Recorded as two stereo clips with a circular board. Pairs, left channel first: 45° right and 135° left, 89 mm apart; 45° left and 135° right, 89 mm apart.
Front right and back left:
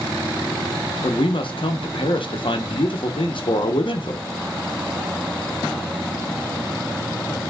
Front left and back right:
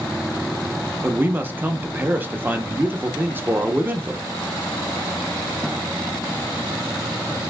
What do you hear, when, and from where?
1.0 s a man speaking: 65° right, 0.8 m